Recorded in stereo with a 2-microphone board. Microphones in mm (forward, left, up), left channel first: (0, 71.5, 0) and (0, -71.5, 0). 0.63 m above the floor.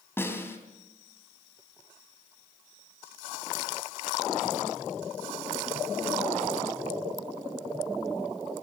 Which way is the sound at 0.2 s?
15° left (ahead or behind).